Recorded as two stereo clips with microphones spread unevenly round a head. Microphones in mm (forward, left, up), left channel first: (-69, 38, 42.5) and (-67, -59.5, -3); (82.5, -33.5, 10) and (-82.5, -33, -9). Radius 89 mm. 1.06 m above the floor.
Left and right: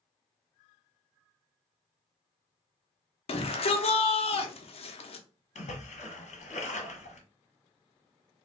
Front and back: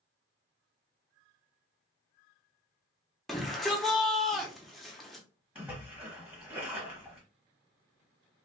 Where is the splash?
100° left, 1.0 m.